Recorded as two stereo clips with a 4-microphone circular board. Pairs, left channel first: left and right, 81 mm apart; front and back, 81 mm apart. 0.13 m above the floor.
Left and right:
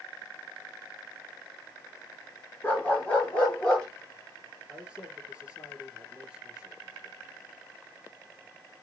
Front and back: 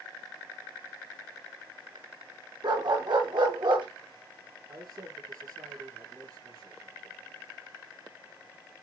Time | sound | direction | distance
2.6 | a dog barking | 160° left | 2.5 m
4.7 | a man speaking | 165° right | 2.5 m